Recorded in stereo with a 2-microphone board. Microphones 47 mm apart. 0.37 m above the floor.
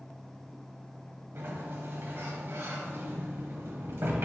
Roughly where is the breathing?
No breathing in this recording.